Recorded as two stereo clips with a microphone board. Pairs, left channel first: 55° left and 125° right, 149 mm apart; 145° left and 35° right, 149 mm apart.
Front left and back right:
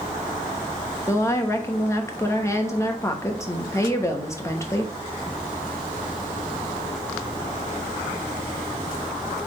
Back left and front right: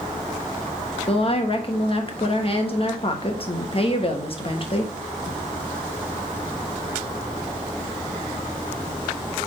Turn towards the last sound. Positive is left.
turn(degrees=120)